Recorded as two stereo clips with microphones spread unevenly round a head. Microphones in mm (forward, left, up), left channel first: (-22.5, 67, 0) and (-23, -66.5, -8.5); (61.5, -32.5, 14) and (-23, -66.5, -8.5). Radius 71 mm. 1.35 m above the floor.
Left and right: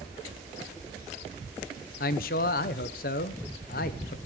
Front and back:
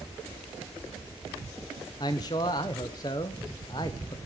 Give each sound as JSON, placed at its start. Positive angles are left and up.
{"t": 2.0, "sound": "a man speaking", "azimuth_deg": 85, "distance_m": 0.8}